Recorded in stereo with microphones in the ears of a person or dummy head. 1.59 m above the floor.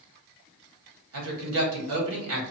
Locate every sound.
1.1 s a woman speaking: 85° right, 1.1 m